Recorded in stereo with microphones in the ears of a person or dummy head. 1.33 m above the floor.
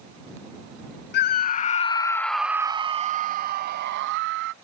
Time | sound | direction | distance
1.1 | a scream | 55° left (ahead or behind) | ?